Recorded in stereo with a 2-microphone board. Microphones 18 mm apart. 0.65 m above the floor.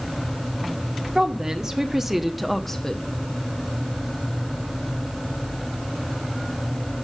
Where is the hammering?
No hammering in this recording.